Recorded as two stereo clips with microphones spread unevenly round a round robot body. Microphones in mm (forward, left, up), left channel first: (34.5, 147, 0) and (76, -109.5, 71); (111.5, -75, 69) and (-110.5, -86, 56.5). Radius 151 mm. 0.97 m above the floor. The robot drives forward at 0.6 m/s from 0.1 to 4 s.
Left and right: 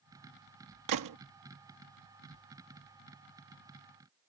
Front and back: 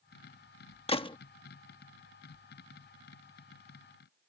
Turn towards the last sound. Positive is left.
turn(degrees=-120)